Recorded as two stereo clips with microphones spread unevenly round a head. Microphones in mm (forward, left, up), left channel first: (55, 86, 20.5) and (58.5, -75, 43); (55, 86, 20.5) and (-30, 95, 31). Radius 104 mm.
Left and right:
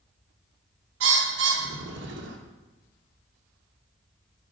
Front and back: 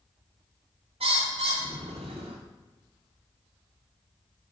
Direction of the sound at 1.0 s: 130° right.